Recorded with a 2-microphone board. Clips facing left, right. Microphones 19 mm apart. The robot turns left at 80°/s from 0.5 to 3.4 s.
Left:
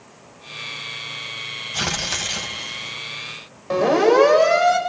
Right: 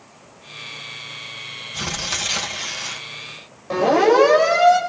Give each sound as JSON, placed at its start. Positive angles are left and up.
{"t": 1.7, "sound": "tearing paper", "azimuth_deg": 40, "distance_m": 3.0}
{"t": 3.7, "sound": "a siren", "side_deg": 15, "distance_m": 7.5}